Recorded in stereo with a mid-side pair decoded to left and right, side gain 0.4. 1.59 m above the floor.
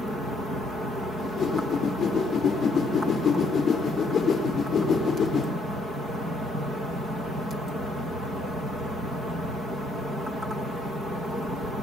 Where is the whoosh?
55° left, 5 m.